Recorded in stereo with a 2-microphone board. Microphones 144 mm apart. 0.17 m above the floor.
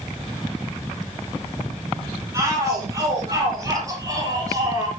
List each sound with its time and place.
2.3 s a shout: 25° right (ahead or behind), 6 m